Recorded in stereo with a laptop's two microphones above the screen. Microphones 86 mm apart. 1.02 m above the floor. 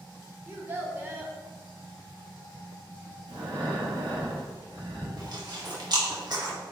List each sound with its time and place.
0.5 s a child speaking: 25° right (ahead or behind), 1.0 m
3.3 s breathing: 75° right (ahead or behind), 1.9 m
5.2 s chewing: 50° right (ahead or behind), 1.5 m